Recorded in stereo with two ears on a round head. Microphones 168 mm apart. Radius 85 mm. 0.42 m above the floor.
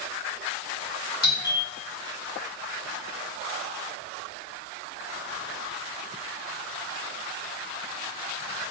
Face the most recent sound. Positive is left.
turn(degrees=20)  # may be behind; listen again after turning